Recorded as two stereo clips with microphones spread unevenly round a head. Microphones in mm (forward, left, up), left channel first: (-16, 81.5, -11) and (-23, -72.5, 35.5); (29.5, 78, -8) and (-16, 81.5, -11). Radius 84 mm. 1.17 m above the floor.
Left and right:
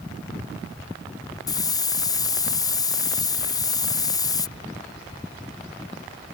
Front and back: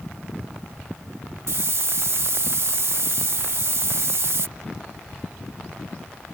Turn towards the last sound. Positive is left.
turn(degrees=160)